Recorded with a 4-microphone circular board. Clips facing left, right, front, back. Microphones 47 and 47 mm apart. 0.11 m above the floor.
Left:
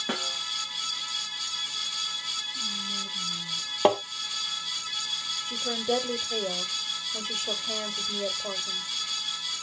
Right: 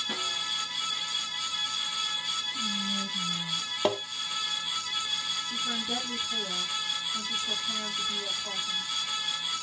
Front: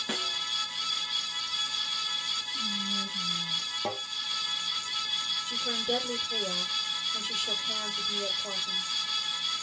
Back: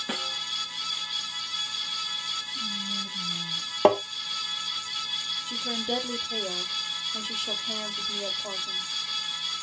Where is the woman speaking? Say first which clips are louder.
Left 8 dB, back 1 dB; 90° left, 2.5 m.